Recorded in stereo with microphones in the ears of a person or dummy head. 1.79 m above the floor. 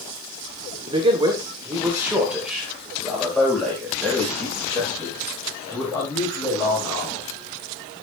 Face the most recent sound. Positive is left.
turn(degrees=20)  # may be behind; listen again after turning